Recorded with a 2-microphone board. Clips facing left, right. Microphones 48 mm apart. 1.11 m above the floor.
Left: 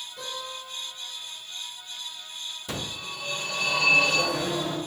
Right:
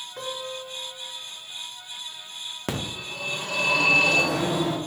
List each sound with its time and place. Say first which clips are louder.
0.2 s a guitar: right 4 dB; 70° right (ahead or behind), 3.5 m
2.7 s a phone ringing: right 4 dB; 70° right (ahead or behind), 1.4 m